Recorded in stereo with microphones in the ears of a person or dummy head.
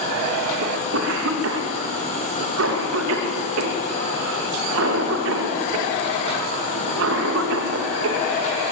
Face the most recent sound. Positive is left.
turn(degrees=-70)  # may be behind; listen again after turning